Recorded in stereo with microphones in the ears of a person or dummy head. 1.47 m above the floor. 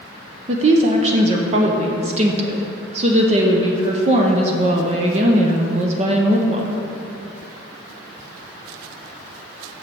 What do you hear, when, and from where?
0.5 s a woman speaking: 45° right (ahead or behind), 0.7 m